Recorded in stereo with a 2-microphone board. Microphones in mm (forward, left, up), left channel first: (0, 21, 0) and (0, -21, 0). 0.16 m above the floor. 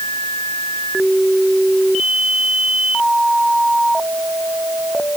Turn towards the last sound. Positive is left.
No sound to turn to.